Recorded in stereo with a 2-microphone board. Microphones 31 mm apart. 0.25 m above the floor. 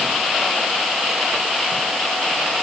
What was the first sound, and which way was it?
Only background noise.